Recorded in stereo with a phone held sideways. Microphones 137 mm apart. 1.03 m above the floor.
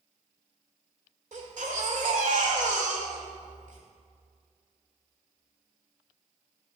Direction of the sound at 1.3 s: 65° right (ahead or behind).